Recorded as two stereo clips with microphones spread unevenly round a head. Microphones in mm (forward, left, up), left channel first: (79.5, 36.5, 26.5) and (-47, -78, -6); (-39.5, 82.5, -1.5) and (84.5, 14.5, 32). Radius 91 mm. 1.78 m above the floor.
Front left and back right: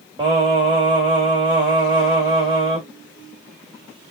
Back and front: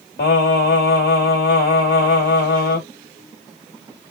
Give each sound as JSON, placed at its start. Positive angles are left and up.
{"t": 0.2, "sound": "singing", "azimuth_deg": 150, "distance_m": 2.0}